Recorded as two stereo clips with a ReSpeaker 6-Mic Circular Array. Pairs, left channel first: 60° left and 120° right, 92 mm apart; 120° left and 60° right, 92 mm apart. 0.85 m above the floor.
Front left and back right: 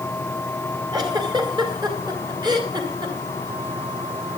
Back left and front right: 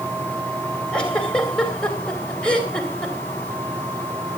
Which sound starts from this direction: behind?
A giggle, at 0.9 s.